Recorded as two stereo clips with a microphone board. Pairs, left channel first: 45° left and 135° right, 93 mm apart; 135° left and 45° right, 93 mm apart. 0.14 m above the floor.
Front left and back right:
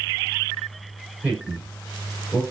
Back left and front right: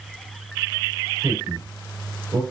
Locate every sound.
1.2 s a man speaking: 60° right, 2.5 m